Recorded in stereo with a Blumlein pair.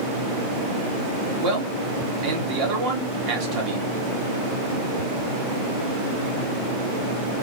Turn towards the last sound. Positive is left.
turn(degrees=-40)